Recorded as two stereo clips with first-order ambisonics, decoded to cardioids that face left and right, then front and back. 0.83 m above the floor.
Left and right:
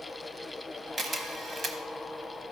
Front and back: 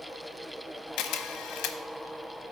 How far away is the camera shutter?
About 0.8 m.